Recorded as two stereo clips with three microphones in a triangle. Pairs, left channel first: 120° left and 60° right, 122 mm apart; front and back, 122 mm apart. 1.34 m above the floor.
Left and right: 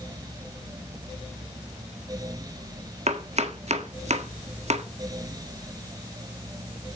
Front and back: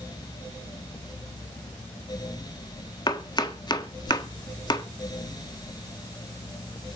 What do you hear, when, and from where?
3.1 s chopping: 50° right, 1.4 m